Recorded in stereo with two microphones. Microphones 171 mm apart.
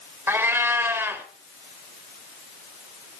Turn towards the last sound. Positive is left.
turn(degrees=-15)  # may be behind; listen again after turning